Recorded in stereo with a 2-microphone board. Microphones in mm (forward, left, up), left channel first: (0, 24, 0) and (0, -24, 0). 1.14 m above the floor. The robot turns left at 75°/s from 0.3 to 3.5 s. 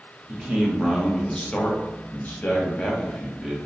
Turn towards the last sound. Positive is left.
turn(degrees=-10)